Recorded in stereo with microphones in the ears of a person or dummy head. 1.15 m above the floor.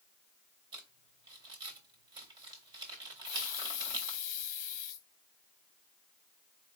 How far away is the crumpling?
About 1.4 m.